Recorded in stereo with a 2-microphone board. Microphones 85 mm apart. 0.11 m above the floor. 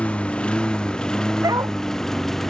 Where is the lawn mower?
15° left (ahead or behind); by 2.5 s 5° left (ahead or behind).